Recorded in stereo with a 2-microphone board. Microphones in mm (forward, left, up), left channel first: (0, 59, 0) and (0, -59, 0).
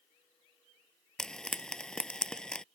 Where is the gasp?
No gasp in this recording.